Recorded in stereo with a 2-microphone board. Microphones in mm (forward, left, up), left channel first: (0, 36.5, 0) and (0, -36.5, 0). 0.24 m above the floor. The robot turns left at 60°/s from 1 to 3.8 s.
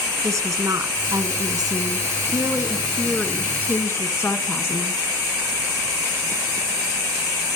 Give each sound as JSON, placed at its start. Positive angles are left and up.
{"t": 0.2, "sound": "a woman speaking", "azimuth_deg": -55, "distance_m": 2.0}